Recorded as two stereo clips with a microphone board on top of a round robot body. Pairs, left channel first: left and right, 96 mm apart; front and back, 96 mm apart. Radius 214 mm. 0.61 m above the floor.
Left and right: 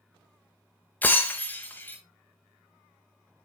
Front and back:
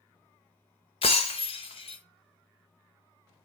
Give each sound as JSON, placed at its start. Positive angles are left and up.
{"t": 1.0, "sound": "breaking glass", "azimuth_deg": 20, "distance_m": 0.6}